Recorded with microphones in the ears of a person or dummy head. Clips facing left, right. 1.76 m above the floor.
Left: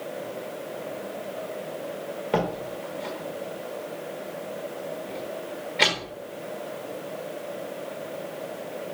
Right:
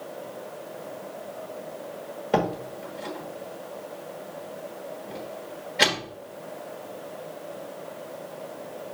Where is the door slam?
5° right (ahead or behind), 1.2 m.